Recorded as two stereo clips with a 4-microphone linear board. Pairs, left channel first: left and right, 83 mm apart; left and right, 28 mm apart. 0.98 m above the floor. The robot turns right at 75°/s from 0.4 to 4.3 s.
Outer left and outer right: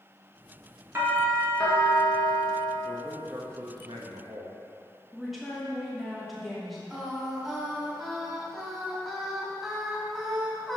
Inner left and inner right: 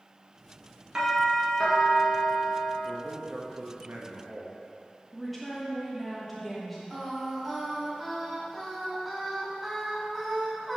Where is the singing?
5° right (ahead or behind), 1.8 m.